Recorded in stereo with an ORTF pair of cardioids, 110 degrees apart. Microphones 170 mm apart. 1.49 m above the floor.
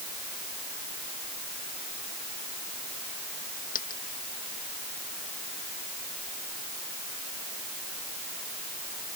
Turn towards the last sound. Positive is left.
turn(degrees=55)